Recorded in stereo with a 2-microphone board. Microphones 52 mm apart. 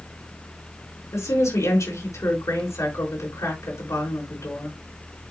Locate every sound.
1.1 s a woman speaking: 75° left (ahead or behind), 5 m